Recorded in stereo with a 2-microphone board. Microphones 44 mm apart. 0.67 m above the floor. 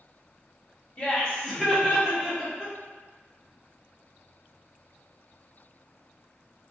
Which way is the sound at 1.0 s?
30° left (ahead or behind).